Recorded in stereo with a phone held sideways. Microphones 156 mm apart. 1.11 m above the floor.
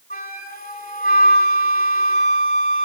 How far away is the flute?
About 2.5 m.